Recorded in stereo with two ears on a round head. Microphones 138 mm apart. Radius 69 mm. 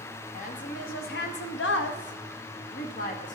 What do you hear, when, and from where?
0.3 s a woman speaking: 50° left (ahead or behind), 1.3 m